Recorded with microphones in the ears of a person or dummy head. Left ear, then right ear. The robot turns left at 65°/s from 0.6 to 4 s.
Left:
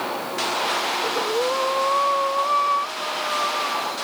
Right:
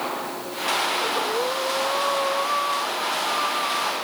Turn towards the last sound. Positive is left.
turn(degrees=-15)